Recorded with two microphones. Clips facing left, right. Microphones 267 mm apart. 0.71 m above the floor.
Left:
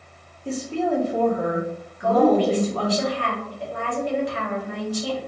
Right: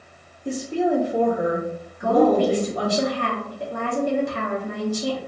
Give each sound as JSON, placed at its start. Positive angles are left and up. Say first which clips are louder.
{"t": 0.5, "sound": "a woman speaking", "louder": "right 2 dB", "side_deg": -15, "distance_m": 0.7}
{"t": 2.0, "sound": "a woman speaking", "louder": "even", "side_deg": -50, "distance_m": 1.1}